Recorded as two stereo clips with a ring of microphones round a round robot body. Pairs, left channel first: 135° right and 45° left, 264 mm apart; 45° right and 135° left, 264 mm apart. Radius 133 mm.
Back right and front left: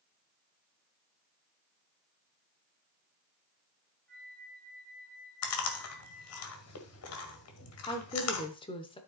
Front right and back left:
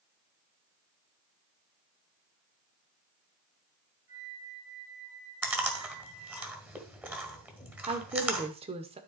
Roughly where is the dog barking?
I don't hear a dog barking.